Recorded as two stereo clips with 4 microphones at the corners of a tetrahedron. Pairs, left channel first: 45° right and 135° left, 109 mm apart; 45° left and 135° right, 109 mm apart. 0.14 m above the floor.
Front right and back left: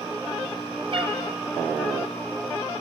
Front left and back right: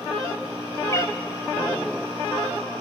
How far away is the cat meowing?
About 1.0 m.